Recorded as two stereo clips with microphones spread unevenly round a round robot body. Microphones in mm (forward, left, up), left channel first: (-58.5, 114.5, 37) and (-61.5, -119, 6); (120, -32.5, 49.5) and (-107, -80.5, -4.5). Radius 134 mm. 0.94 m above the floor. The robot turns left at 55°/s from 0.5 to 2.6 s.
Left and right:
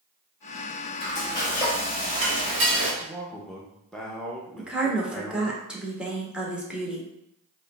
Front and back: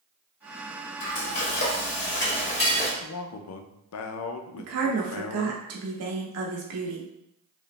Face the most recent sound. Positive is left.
turn(degrees=-175)